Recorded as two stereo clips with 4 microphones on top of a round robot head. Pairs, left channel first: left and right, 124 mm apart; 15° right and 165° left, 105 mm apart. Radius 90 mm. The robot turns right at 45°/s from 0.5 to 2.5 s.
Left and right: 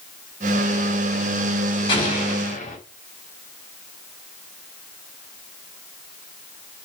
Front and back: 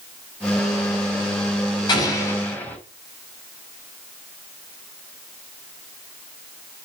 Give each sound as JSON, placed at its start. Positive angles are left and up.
{"t": 1.9, "sound": "an explosion", "azimuth_deg": 35, "distance_m": 6.0}